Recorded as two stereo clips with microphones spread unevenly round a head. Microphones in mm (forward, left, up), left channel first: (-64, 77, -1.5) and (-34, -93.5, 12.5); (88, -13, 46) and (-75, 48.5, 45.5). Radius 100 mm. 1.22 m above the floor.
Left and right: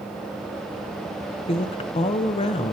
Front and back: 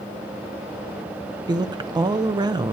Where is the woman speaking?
110° left, 0.5 m.